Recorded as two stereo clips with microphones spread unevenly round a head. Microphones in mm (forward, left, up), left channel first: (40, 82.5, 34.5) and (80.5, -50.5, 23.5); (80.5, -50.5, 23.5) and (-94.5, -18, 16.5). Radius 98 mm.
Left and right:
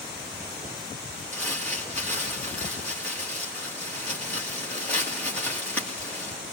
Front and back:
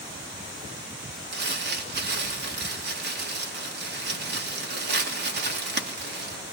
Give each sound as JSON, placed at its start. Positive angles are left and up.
{"t": 1.3, "sound": "crumpling", "azimuth_deg": -170, "distance_m": 2.5}